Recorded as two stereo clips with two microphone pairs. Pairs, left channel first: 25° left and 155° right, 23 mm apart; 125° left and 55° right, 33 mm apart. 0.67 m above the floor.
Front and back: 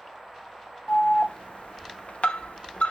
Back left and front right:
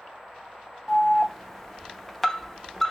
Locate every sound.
0.9 s an alarm: 45° left, 0.6 m